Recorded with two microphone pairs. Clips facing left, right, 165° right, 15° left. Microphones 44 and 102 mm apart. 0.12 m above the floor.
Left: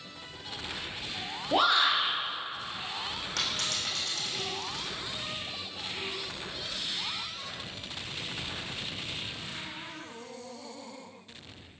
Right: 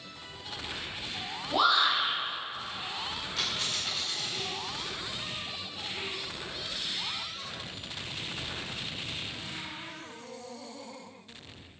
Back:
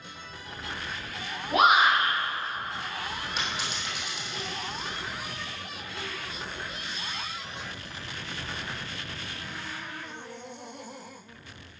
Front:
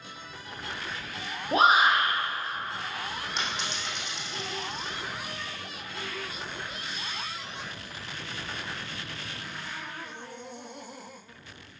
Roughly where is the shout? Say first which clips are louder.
Even, even; ahead left.